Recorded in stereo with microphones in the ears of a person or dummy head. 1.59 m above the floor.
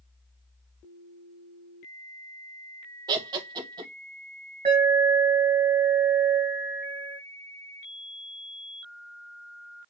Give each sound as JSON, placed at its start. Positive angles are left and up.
{"t": 3.1, "sound": "laughter", "side_deg": -25, "distance_m": 1.1}
{"t": 4.7, "sound": "an alarm", "side_deg": -30, "distance_m": 2.5}